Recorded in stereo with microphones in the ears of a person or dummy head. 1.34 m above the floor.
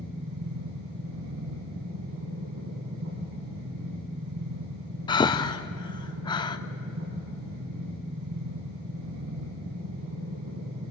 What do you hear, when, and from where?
0.0 s a machine running: 70° right (ahead or behind), 5.5 m
5.1 s breathing: 20° left (ahead or behind), 0.6 m